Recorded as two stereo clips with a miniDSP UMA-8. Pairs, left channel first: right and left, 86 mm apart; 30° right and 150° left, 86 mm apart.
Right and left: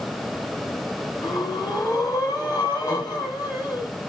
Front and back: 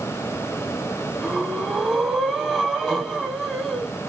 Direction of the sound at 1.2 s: 125° right.